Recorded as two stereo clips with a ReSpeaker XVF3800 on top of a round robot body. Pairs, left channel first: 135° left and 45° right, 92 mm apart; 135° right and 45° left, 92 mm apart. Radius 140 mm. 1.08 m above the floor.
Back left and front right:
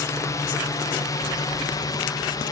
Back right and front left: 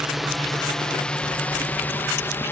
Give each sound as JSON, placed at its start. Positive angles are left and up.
{"t": 0.0, "sound": "a drone", "azimuth_deg": 130}